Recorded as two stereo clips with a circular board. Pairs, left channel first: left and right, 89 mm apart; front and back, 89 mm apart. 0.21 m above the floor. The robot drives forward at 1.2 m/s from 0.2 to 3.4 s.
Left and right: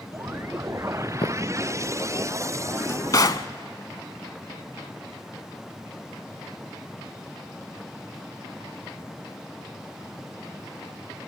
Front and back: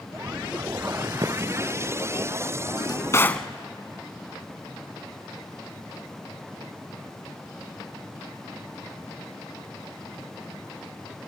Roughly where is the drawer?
Ahead left.